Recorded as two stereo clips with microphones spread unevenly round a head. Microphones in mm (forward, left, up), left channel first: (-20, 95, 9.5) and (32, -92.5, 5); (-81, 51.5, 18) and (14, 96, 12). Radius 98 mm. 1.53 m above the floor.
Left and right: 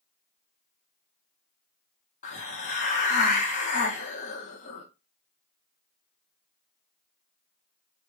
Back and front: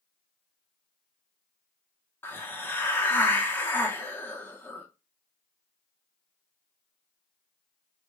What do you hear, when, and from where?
2.2 s a hiss: 145° left, 0.8 m